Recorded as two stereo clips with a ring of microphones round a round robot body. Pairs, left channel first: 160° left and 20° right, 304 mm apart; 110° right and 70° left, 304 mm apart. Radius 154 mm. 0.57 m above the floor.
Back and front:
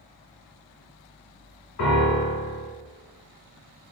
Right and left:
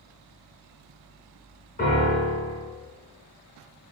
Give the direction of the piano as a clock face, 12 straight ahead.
6 o'clock.